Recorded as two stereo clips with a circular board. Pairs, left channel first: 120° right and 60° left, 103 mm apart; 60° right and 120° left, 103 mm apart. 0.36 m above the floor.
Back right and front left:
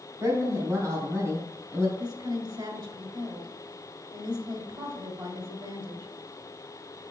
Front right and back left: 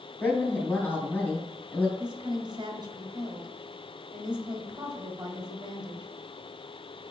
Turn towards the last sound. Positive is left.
turn(degrees=85)